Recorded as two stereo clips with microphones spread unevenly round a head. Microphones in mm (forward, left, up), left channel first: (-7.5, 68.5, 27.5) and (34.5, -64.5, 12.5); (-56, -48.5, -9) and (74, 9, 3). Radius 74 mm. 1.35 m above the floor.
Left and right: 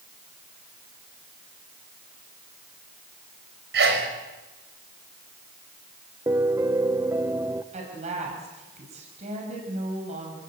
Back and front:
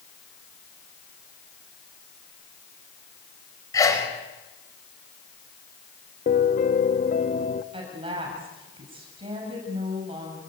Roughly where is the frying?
I don't hear frying.